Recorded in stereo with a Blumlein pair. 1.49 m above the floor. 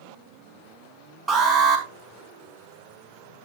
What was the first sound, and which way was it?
An alarm, 15° right.